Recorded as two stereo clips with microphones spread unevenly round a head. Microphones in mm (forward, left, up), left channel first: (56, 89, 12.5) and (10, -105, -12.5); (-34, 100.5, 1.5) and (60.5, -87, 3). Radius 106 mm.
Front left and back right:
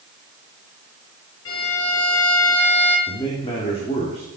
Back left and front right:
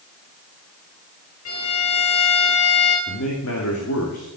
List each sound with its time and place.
1.4 s a violin: 105° left, 5 m
3.1 s a man speaking: 145° left, 2.5 m